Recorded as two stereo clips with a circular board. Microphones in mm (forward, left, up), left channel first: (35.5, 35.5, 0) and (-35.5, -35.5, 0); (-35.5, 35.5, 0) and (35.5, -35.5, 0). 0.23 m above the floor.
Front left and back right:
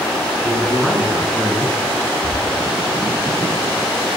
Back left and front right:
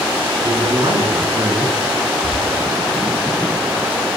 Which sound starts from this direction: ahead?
Whispering, at 2.2 s.